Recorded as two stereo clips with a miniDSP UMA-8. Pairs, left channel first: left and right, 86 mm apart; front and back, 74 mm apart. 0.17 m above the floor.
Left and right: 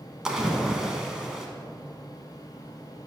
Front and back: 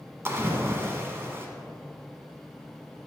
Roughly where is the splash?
Behind.